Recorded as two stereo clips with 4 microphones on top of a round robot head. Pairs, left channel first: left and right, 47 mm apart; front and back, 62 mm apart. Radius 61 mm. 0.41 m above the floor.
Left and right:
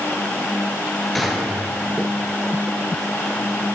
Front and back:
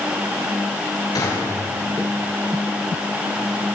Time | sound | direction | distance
1.1 | a gunshot | straight ahead | 8.5 m